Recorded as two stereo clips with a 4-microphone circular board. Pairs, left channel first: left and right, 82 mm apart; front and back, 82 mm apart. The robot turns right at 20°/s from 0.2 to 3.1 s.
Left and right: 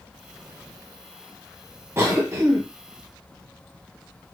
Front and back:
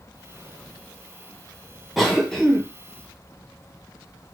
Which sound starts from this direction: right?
A cough, at 2.0 s.